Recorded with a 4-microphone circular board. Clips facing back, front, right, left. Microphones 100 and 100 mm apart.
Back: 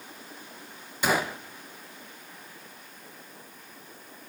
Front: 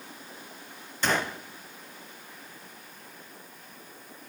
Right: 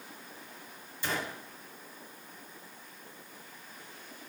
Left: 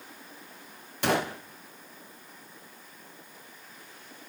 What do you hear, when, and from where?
1.0 s a gunshot: 100° left, 0.6 m